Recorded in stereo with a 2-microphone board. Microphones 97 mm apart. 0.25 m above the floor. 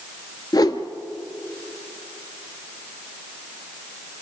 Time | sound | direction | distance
0.5 | a whoosh | 45° left (ahead or behind) | 1.0 m